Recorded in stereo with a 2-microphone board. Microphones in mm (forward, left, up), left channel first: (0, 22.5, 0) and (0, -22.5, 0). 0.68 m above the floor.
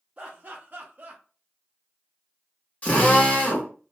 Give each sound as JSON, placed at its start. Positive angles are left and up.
{"t": 0.2, "sound": "laughter", "side_deg": -25, "distance_m": 0.6}
{"t": 2.8, "sound": "a drill", "side_deg": 35, "distance_m": 1.0}